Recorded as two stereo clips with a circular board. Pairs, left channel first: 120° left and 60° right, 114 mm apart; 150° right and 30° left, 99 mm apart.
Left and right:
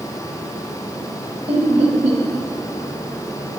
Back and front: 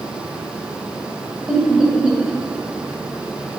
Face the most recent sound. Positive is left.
turn(degrees=-55)